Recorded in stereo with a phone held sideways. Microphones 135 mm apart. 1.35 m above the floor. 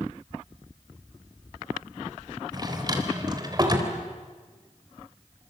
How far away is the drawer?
About 3.5 m.